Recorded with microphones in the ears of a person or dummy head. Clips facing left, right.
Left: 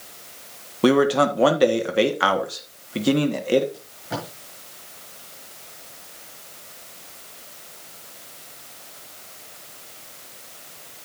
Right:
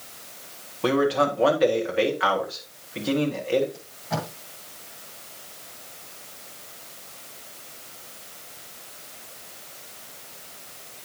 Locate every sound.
0.8 s a man speaking: 65° left (ahead or behind), 1.6 m
3.7 s tape being pulled: 30° left (ahead or behind), 7 m